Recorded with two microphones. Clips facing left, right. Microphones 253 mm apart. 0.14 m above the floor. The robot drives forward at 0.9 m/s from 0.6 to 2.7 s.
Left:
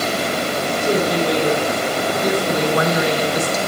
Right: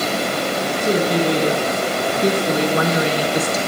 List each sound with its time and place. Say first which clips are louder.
0.8 s a woman speaking: right 1 dB; 20° right (ahead or behind), 2.0 m; by 3.6 s 30° right (ahead or behind), 1.4 m